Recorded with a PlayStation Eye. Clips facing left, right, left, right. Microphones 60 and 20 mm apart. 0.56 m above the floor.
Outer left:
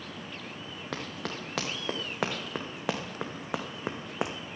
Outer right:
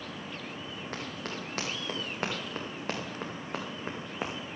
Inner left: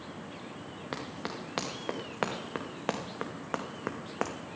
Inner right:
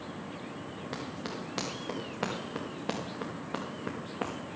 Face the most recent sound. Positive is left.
turn(degrees=75)  # may be behind; listen again after turning